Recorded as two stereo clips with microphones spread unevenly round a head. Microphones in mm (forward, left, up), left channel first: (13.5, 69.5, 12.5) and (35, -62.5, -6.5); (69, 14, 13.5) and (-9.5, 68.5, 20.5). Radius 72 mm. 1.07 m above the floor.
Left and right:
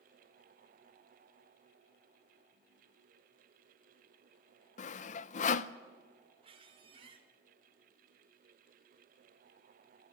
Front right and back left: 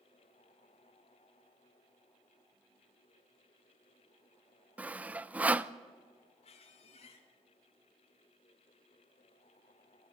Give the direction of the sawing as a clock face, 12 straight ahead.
10 o'clock.